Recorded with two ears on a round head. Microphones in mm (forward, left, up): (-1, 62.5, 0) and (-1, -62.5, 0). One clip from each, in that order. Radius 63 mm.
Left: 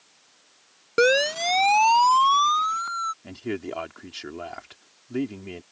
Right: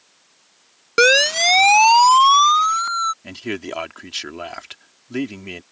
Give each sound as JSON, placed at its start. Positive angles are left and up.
{"t": 1.0, "sound": "a siren", "side_deg": -45}
{"t": 3.2, "sound": "a man speaking", "side_deg": -60}